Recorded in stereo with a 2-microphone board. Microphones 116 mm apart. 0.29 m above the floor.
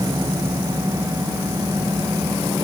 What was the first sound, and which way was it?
Only background noise.